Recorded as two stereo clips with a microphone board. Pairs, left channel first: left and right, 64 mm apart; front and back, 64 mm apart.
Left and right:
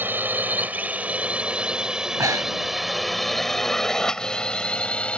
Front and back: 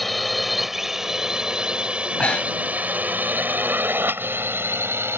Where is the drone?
90° right; by 5.2 s 155° left.